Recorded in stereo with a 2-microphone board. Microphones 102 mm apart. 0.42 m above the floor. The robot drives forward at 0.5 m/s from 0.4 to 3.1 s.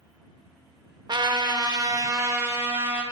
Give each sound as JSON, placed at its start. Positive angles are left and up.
{"t": 1.1, "sound": "a trumpet", "side_deg": -45, "distance_m": 0.6}